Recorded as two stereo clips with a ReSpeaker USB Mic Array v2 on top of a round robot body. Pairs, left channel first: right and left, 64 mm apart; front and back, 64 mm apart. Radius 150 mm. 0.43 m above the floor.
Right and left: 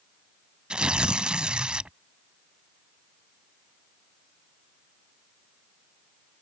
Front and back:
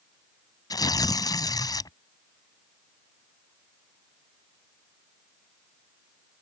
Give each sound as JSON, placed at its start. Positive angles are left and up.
{"t": 0.7, "sound": "tearing paper", "azimuth_deg": 15}